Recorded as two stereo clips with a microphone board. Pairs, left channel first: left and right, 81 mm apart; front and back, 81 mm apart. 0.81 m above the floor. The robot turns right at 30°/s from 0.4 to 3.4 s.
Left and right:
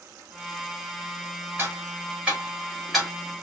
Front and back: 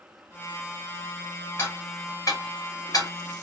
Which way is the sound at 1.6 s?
45° right.